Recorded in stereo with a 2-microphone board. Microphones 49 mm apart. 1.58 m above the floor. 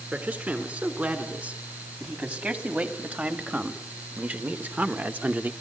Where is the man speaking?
35° right (ahead or behind), 4.5 m.